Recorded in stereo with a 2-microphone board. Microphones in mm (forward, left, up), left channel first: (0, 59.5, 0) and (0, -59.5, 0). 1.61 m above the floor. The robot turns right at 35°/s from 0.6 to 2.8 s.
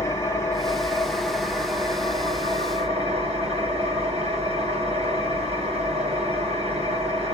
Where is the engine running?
155° left, 2.0 m; by 7.3 s 125° right, 2.0 m.